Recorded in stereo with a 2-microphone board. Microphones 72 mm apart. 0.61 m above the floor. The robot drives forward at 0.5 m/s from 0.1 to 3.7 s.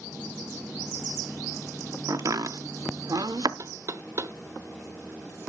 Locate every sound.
2.1 s chopping: 50° right (ahead or behind), 0.8 m; by 3.5 s 70° right (ahead or behind), 0.7 m
3.6 s knocking: 50° right (ahead or behind), 0.6 m